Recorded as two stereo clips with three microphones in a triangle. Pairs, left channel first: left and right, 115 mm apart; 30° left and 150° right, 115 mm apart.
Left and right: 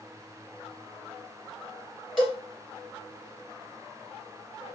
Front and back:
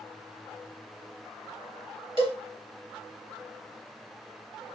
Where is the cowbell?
175° left, 1.5 m.